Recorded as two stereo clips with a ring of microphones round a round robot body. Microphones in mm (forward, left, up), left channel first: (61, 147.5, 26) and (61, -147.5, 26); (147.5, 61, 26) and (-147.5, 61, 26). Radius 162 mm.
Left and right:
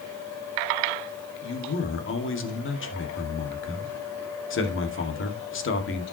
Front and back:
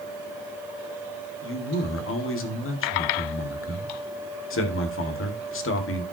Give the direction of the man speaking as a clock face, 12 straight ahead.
11 o'clock.